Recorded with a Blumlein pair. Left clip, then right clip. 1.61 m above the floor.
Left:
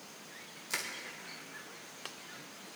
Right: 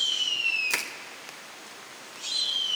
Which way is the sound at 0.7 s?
20° right.